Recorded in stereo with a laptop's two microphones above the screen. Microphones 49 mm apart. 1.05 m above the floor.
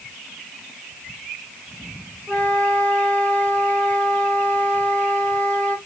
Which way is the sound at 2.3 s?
25° left (ahead or behind).